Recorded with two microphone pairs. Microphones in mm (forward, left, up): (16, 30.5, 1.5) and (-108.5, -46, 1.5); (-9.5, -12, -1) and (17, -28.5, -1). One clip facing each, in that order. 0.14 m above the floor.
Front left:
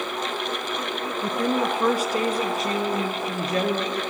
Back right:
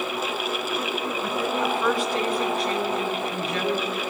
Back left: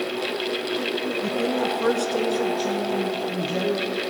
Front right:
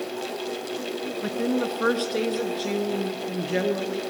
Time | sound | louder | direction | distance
1.2 | a woman speaking | front left 4 dB, front right 1 dB | 15° left | 2 m